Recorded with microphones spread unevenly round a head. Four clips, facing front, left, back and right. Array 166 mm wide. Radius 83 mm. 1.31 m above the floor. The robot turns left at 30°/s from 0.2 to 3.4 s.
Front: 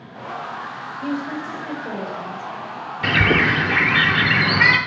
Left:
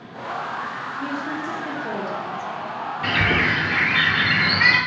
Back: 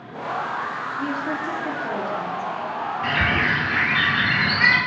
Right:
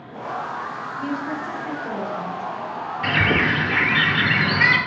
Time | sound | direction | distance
1.0 | a woman speaking | 170° right | 3 m
3.0 | a bird | straight ahead | 0.6 m